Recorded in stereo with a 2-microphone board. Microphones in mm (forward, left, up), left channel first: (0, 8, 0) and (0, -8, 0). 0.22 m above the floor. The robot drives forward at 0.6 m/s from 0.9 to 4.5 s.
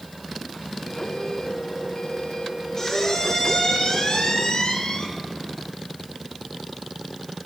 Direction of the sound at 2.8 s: 35° left (ahead or behind).